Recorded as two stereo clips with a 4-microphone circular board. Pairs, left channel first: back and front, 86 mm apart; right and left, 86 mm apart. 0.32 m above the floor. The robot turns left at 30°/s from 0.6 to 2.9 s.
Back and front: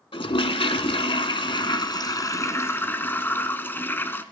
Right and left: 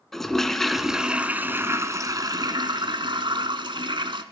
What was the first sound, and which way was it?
A toilet flushing, 175° right.